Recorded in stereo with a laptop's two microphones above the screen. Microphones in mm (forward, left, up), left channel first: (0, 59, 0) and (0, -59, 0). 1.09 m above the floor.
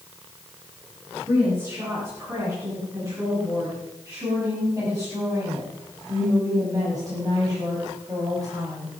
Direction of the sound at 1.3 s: 25° right (ahead or behind).